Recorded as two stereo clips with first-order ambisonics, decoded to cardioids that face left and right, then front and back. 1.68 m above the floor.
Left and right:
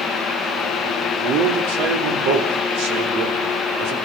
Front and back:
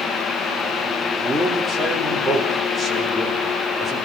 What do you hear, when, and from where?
1.2 s a man speaking: 90° right, 5 m; by 4.0 s 80° right, 6 m